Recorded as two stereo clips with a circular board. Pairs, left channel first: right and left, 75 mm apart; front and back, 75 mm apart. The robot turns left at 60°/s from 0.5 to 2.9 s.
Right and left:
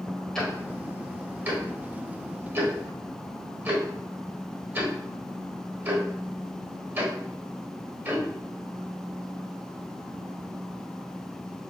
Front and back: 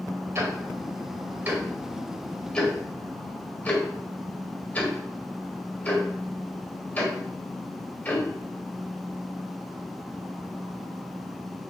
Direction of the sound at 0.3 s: 165° right.